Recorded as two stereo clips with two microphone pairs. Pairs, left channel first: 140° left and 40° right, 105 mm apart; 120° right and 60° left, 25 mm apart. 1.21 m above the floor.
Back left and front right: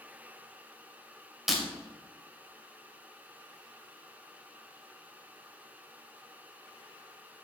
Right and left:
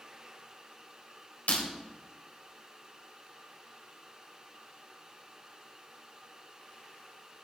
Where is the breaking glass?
130° right, 2.5 m.